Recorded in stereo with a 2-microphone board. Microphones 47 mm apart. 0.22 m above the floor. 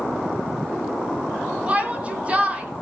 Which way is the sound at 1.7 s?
25° right (ahead or behind).